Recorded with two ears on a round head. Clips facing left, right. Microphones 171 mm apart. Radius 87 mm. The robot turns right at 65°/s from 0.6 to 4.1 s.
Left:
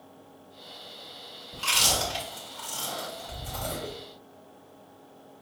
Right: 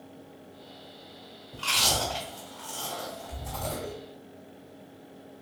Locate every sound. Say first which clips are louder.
1.5 s chewing: even; 15° left (ahead or behind), 1.5 m; by 3.9 s centre (ahead or behind), 1.5 m